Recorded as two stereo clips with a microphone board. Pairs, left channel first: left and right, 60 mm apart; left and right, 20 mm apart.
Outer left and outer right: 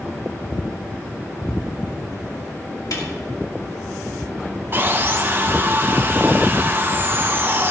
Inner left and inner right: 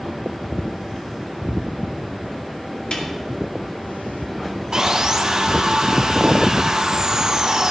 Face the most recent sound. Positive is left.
turn(degrees=-35)  # may be behind; listen again after turning